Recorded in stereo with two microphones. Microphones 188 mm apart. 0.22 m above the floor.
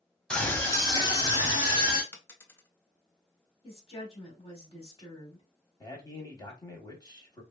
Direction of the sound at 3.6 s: 30° left (ahead or behind).